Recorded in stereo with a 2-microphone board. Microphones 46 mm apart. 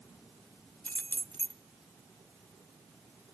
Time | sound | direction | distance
0.8 | keys jangling | 40° left (ahead or behind) | 0.5 m